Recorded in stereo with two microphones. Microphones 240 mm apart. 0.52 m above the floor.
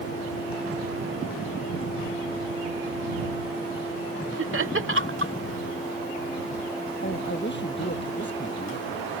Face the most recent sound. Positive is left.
turn(degrees=50)  # may be behind; listen again after turning